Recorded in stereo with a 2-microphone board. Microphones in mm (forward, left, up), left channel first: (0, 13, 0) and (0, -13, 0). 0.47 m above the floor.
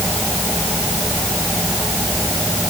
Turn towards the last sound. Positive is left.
No sound to turn to.